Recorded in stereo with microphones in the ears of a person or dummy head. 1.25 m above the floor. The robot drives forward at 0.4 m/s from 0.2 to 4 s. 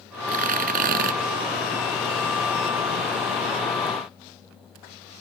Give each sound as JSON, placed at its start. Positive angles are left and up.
{"t": 0.3, "sound": "tearing paper", "side_deg": -40}